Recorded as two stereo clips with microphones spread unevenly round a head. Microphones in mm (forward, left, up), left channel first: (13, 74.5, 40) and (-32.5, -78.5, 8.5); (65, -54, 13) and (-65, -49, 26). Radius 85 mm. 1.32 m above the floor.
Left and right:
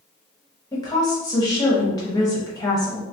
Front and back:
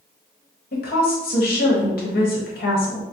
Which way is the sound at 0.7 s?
5° left.